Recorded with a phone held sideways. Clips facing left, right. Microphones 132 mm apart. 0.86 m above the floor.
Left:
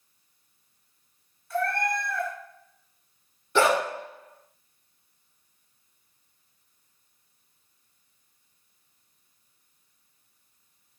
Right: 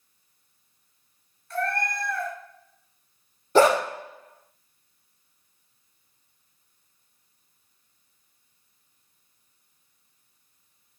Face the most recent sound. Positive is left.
turn(degrees=-40)  # may be behind; listen again after turning